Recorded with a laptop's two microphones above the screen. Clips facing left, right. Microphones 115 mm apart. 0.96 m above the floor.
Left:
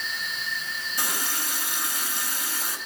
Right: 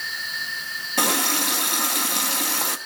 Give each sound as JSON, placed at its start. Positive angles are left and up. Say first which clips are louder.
{"t": 1.0, "sound": "a running tap", "louder": "right 10 dB", "side_deg": -75, "distance_m": 0.9}